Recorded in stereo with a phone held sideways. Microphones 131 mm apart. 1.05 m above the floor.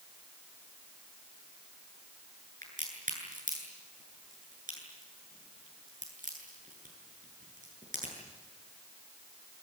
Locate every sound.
2.6 s a crack: 85° right, 8.5 m